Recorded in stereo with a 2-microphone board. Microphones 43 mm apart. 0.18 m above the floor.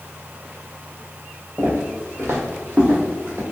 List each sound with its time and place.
1.6 s footsteps: 80° right, 1.2 m; by 3.4 s 40° right (ahead or behind), 1.8 m